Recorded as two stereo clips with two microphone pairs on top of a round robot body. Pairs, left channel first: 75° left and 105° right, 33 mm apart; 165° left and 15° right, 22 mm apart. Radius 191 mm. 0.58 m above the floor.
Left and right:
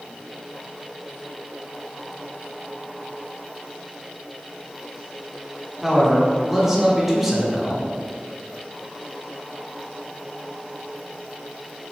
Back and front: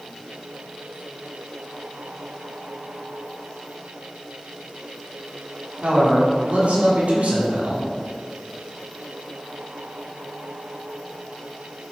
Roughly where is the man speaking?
Ahead.